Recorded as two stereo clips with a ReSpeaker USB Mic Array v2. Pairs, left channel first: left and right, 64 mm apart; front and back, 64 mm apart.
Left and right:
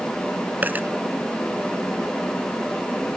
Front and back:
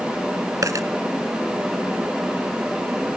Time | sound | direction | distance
0.6 | a dropped coin | 150° right | ?